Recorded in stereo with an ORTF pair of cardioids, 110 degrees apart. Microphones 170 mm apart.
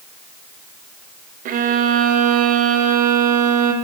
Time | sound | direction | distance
1.4 | a violin | 55° right | 0.6 m